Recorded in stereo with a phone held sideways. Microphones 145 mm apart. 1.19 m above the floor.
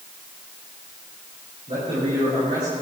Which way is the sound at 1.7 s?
45° right (ahead or behind).